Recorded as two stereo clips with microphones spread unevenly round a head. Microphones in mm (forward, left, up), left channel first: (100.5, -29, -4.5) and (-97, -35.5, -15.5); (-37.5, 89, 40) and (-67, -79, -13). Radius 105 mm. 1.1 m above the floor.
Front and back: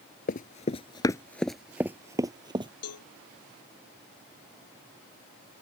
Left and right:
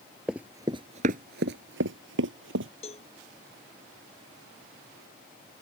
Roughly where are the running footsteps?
Ahead.